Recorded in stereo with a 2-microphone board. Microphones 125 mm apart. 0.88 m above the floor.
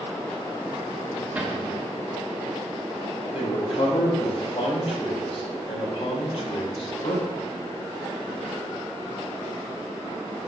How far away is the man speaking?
About 2.5 m.